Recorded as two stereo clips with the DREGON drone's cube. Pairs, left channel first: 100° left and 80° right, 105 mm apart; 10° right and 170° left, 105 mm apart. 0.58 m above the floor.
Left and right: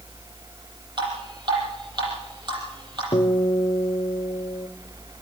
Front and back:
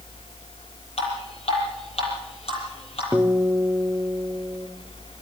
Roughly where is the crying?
I don't hear crying.